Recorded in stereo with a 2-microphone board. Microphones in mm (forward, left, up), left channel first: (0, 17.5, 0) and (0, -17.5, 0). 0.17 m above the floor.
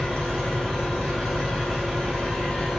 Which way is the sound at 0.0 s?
20° left (ahead or behind).